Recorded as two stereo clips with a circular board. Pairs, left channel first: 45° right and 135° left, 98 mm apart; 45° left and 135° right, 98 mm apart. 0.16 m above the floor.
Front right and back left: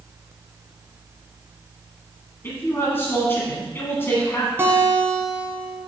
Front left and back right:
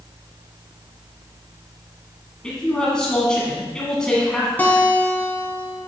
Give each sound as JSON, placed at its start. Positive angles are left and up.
{"t": 2.4, "sound": "a man speaking", "azimuth_deg": -25, "distance_m": 1.6}
{"t": 4.6, "sound": "a guitar", "azimuth_deg": 95, "distance_m": 1.4}